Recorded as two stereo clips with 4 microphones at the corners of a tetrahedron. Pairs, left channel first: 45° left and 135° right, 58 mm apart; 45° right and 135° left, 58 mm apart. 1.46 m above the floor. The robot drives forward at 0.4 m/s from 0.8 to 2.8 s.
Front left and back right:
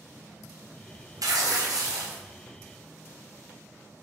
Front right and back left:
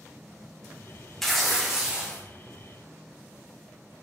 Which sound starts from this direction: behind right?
Tearing paper, at 1.2 s.